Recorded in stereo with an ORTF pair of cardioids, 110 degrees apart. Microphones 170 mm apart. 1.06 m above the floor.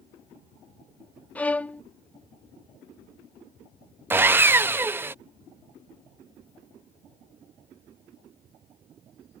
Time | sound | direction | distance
1.4 | a violin | 10° left | ?
4.1 | sawing | 15° right | ?